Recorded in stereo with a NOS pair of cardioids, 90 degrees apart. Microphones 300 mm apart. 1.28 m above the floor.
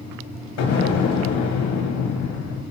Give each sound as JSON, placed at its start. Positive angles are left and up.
{"t": 0.6, "sound": "an explosion", "azimuth_deg": 65, "distance_m": 1.0}